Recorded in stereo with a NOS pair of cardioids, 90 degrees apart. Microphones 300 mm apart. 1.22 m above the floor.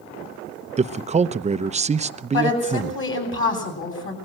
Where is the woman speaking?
40° left, 9 m.